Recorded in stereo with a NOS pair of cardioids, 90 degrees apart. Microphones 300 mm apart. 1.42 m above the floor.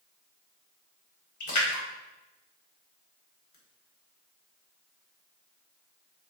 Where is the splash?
70° left, 1.2 m.